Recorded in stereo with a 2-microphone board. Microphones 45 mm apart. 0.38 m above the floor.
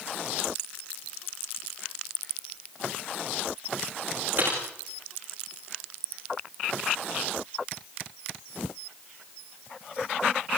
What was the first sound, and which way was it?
Typing on a keyboard, 45° right (ahead or behind).